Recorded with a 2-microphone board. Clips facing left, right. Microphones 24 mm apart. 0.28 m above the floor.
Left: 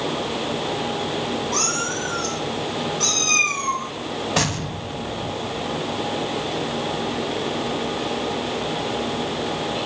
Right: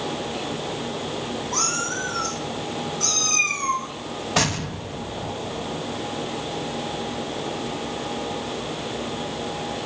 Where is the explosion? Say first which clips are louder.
Right 2 dB; 5° right (ahead or behind), 0.6 m.